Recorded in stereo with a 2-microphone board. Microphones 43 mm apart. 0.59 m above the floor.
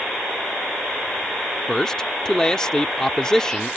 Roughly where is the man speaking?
Centre.